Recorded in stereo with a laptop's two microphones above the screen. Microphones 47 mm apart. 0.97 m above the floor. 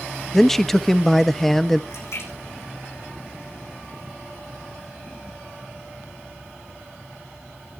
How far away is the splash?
About 9.5 m.